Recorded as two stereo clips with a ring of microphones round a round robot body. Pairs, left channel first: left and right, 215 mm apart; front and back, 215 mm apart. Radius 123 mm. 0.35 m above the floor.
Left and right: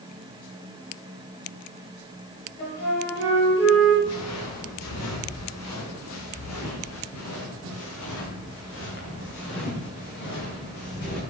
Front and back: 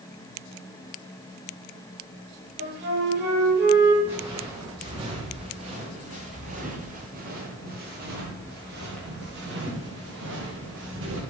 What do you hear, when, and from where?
2.6 s a flute: 130° left, 8.5 m
4.0 s footsteps: 100° left, 5 m; by 11.2 s 140° left, 9 m